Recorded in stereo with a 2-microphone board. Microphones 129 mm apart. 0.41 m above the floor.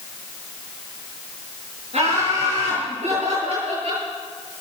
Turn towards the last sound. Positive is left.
turn(degrees=-55)  # may be behind; listen again after turning